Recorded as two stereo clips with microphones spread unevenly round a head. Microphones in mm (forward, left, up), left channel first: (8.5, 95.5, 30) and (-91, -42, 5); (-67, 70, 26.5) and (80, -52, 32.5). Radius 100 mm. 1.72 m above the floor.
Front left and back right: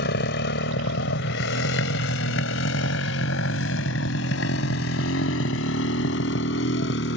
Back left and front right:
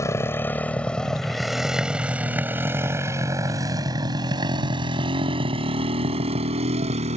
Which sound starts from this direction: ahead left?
A motorcycle, at 0.0 s.